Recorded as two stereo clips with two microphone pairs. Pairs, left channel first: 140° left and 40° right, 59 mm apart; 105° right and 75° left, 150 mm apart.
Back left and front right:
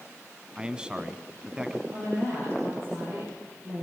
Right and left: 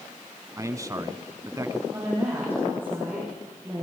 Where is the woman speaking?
Straight ahead, 8.5 m.